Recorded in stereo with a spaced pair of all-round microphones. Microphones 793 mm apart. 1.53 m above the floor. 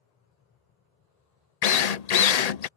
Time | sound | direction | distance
1.6 | a drill | 60° left (ahead or behind) | ?